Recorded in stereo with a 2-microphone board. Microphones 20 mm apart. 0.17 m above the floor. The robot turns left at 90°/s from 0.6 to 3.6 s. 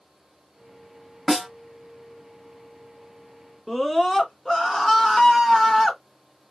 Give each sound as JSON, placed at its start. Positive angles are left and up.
{"t": 1.3, "sound": "a snare drum", "side_deg": 0, "distance_m": 1.0}
{"t": 3.7, "sound": "a scream", "side_deg": 5, "distance_m": 1.4}